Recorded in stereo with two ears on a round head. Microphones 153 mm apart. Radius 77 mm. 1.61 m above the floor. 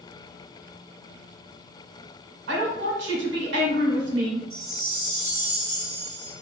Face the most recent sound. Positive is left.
turn(degrees=5)  # may be behind; listen again after turning